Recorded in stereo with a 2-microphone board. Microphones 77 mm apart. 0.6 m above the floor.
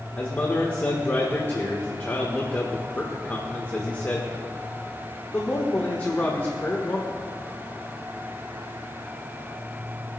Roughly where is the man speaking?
Left.